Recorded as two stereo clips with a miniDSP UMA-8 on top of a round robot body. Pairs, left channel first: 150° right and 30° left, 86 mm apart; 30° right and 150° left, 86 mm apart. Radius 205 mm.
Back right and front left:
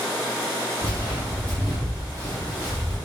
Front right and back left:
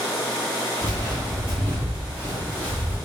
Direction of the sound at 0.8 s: 170° right.